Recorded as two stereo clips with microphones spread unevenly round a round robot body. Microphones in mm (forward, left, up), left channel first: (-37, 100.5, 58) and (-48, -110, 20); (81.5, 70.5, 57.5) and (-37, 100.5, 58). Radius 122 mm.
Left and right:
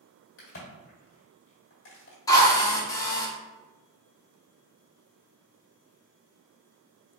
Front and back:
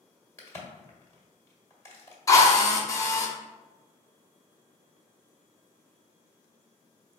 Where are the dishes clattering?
No dishes clattering in this recording.